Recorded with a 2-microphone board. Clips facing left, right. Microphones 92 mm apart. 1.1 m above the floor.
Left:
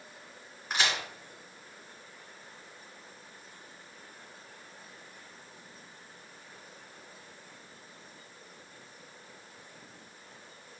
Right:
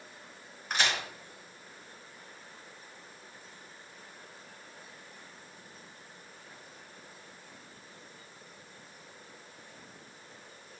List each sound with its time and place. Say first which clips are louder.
0.7 s a crack: even; 5° left (ahead or behind), 3 m